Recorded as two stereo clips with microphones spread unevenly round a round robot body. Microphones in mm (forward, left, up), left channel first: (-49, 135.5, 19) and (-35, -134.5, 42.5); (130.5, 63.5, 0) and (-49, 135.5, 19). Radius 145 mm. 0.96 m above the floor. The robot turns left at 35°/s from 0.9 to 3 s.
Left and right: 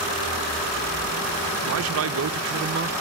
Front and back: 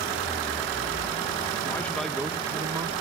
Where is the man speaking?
90° right, 0.6 m; by 2.9 s 135° right, 0.6 m.